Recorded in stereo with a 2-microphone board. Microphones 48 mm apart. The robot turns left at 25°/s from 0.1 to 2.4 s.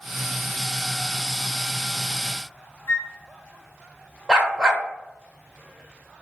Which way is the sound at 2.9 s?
55° left (ahead or behind).